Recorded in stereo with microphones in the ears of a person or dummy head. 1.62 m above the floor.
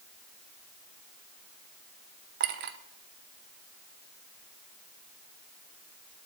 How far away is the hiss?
I don't hear a hiss.